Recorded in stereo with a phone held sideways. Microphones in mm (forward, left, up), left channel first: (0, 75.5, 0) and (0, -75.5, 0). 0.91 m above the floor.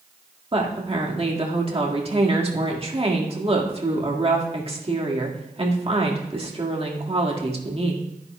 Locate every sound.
0.5 s a woman speaking: 40° right (ahead or behind), 1.7 m